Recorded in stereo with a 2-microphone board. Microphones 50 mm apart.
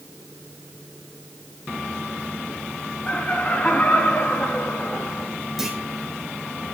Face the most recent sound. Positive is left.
turn(degrees=-5)  # may be behind; listen again after turning